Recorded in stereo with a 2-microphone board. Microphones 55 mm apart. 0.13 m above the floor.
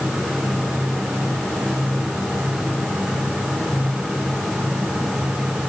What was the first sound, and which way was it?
Only background noise.